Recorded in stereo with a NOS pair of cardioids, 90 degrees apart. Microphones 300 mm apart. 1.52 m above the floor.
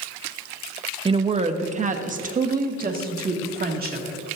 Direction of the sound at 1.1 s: 20° right.